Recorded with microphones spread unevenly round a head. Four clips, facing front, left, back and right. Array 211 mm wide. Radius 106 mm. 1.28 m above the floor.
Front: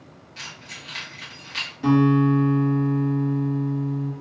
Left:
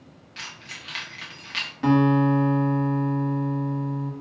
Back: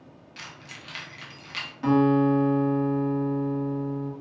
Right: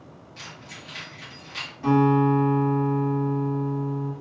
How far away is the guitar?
About 1.5 m.